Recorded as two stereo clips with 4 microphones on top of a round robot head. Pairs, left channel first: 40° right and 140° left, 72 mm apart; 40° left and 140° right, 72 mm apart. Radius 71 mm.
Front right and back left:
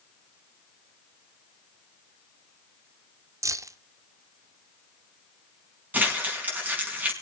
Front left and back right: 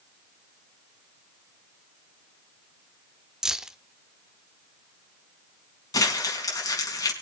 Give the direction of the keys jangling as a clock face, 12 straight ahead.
7 o'clock.